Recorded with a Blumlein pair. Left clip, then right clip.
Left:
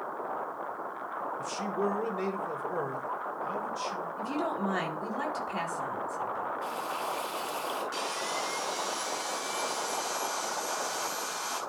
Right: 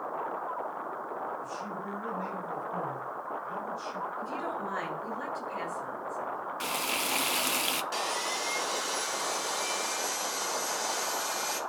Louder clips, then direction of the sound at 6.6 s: Right 2 dB; 45° right.